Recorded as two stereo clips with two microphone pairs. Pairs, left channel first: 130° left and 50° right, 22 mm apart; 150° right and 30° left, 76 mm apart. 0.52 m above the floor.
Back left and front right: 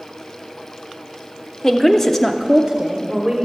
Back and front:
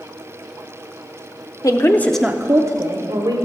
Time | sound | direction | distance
1.6 | a woman speaking | 165° right | 1.1 m